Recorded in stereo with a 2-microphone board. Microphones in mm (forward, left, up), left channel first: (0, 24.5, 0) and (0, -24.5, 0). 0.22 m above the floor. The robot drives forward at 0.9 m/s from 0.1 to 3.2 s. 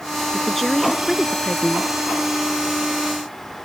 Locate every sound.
0.3 s a woman speaking: 5° left (ahead or behind)